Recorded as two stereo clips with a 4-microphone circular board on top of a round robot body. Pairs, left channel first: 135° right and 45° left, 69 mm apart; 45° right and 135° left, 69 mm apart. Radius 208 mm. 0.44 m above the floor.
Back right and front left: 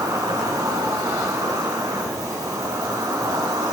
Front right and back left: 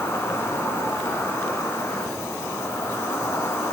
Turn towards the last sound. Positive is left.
turn(degrees=10)